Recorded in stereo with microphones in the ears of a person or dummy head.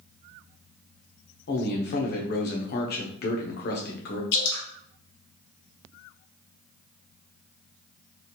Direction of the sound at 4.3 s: 70° left (ahead or behind).